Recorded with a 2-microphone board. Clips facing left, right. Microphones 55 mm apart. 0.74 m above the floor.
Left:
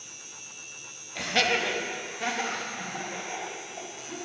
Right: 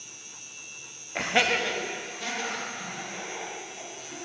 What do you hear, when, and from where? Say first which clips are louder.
1.1 s laughter: right 1 dB; 45° right (ahead or behind), 0.7 m; by 4.2 s 45° left (ahead or behind), 4 m